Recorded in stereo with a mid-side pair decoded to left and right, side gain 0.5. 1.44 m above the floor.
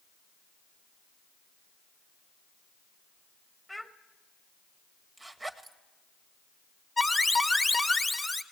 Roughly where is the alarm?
Ahead.